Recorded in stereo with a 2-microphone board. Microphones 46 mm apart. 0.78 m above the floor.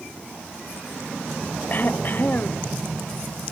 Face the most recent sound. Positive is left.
turn(degrees=40)  # may be behind; listen again after turning